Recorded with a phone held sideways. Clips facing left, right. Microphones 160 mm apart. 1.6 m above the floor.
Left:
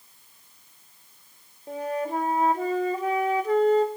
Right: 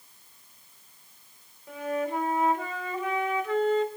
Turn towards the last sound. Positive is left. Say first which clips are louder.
# left 1 dB
turn(degrees=35)  # may be behind; listen again after turning